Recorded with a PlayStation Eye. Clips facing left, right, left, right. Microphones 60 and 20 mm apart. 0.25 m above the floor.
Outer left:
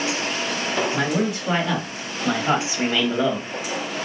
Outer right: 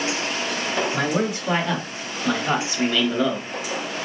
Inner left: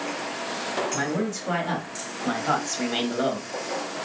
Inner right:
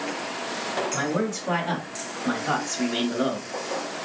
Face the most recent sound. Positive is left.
turn(degrees=25)  # may be behind; listen again after turning